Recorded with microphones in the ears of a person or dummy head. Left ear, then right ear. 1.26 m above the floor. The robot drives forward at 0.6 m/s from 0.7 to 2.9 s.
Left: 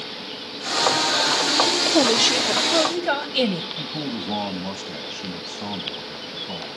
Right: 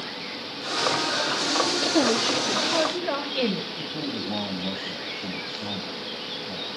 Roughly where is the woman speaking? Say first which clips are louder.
Left 5 dB; left.